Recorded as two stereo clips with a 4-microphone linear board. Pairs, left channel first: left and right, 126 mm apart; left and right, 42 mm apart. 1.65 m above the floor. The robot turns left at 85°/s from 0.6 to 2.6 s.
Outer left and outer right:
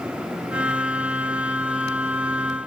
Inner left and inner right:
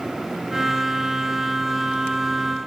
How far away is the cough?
No cough in this recording.